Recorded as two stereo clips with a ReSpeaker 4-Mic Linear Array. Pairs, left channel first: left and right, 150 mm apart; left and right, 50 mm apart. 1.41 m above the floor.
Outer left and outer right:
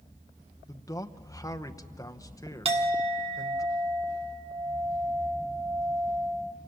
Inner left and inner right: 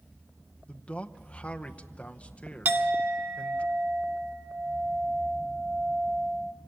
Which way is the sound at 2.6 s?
40° right (ahead or behind).